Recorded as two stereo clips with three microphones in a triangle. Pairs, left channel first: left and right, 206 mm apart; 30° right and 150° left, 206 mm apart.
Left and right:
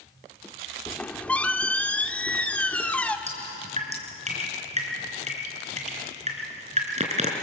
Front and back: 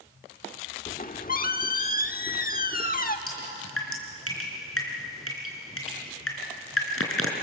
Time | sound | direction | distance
0.9 | a squeak | 5° left | 1.0 m
3.3 | dripping | 30° right | 4 m